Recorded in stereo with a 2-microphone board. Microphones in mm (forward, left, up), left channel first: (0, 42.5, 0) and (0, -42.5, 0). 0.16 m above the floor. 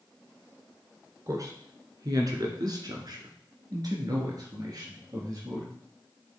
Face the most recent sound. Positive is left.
turn(degrees=-45)  # may be behind; listen again after turning